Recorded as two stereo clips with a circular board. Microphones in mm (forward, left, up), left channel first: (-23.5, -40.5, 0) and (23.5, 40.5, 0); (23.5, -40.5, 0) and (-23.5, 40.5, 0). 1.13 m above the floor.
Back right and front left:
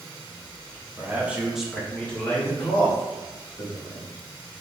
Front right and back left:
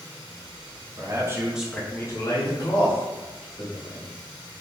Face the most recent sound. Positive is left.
turn(degrees=-55)